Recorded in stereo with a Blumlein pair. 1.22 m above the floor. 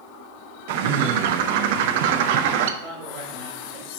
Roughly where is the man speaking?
Ahead right.